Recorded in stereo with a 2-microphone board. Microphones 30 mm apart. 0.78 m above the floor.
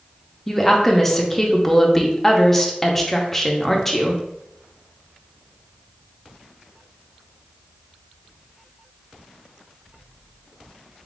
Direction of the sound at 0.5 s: 10° left (ahead or behind).